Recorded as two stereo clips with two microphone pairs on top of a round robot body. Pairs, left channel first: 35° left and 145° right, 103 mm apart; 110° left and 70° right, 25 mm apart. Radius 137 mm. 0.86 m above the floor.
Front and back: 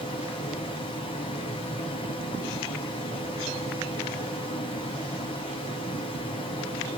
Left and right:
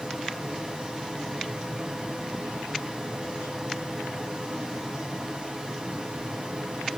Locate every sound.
0.0 s running water: 10° right, 1.4 m